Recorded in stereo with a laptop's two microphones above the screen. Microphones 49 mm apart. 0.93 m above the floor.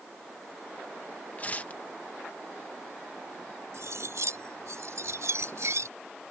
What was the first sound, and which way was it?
Tearing paper, 30° left (ahead or behind).